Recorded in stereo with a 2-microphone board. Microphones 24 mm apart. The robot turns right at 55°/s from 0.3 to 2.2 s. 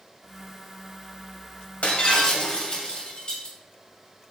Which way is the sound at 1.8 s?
65° left (ahead or behind).